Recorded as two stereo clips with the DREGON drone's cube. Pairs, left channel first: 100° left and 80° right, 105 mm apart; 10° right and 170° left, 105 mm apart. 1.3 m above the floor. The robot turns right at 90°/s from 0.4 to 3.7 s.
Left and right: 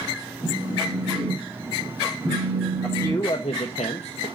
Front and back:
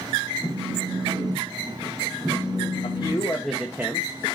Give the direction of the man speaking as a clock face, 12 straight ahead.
12 o'clock.